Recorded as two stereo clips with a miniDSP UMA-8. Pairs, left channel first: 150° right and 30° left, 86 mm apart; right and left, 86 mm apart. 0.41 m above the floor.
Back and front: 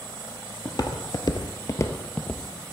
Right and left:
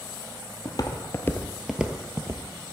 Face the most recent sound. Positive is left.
turn(degrees=135)